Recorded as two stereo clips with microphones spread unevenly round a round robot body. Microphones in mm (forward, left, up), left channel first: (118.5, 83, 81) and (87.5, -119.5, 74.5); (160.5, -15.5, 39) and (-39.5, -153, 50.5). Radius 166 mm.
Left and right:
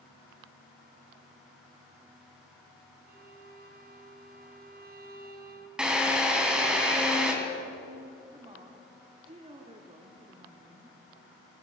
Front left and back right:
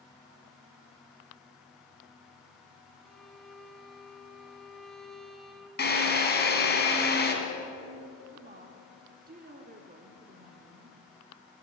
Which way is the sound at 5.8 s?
15° right.